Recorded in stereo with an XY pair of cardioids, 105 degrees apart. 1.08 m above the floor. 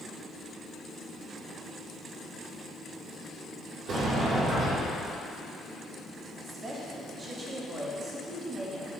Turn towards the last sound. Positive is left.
turn(degrees=-35)